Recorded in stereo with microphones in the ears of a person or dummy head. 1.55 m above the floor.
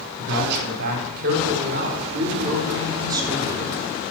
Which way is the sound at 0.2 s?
65° right (ahead or behind).